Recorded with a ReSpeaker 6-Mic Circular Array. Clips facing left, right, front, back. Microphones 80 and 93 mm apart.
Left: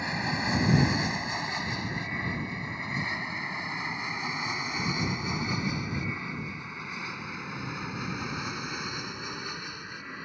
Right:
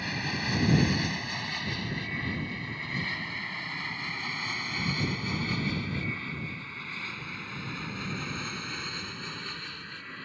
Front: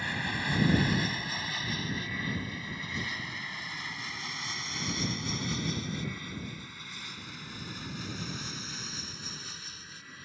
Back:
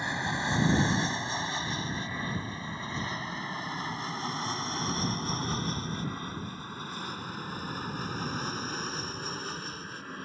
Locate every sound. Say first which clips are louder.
0.0 s an aircraft: left 3 dB, back 3 dB; 135° left; by 10.3 s 160° left